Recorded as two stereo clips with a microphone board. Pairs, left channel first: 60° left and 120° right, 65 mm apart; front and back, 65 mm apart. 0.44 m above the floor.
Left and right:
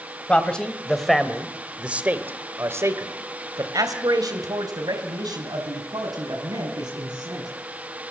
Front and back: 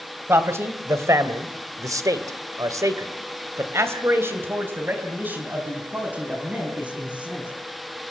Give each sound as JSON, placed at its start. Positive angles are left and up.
{"t": 0.3, "sound": "a man speaking", "azimuth_deg": 130, "distance_m": 3.0}